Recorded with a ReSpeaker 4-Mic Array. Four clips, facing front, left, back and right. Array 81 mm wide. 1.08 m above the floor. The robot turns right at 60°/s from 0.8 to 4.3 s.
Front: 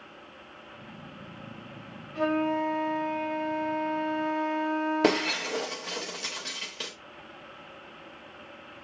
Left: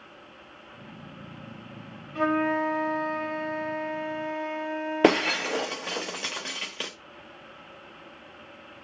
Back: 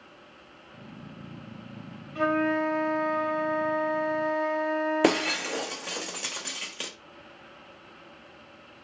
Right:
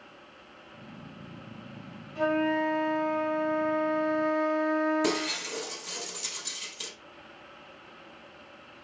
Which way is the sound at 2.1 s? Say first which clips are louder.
Left 2 dB, back 1 dB; 90° left.